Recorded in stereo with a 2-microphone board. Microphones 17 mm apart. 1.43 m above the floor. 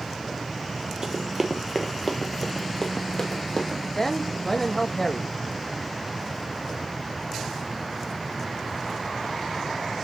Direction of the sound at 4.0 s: 25° left (ahead or behind).